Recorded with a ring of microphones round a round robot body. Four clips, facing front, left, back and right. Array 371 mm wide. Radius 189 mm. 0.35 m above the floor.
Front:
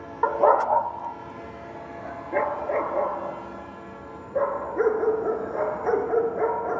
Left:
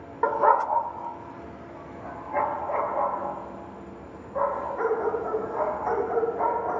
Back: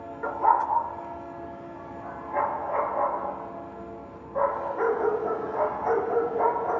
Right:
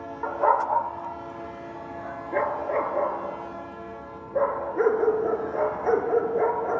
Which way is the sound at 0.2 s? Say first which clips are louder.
Left 2 dB, front 3 dB; 55° left.